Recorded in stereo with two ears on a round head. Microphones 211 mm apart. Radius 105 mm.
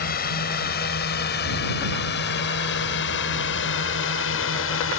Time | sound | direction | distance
0.0 | a drone | 40° left (ahead or behind) | ?